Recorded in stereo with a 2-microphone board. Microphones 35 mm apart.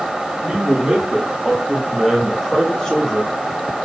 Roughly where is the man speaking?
Right.